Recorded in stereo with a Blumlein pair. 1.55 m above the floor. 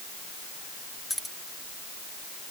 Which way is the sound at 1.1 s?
5° left.